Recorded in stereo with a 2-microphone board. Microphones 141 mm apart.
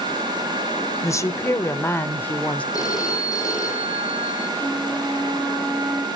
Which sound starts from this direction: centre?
A flute, at 4.6 s.